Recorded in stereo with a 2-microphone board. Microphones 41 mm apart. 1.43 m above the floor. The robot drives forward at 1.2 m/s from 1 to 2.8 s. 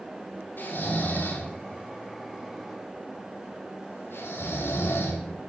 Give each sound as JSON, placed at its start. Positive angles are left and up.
{"t": 0.6, "sound": "snoring", "side_deg": 55, "distance_m": 3.0}